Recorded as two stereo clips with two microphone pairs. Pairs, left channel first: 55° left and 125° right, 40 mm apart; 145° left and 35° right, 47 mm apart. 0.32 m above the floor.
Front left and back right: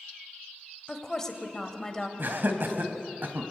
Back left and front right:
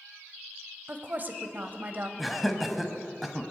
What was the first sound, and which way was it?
A woman speaking, 15° right.